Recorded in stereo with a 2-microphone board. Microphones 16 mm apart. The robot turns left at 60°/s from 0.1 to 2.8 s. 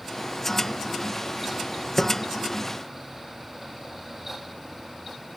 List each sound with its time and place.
2.0 s tapping: 10° left (ahead or behind), 1.8 m; by 2.1 s 20° left (ahead or behind), 1.8 m